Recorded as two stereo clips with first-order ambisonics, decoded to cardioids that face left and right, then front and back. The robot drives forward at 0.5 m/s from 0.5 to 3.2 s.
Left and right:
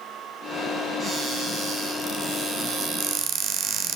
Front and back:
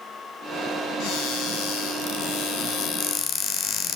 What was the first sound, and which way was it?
A cupboard door, 15° right.